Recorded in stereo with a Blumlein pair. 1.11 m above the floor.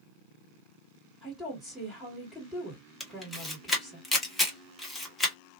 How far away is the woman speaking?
About 1.8 m.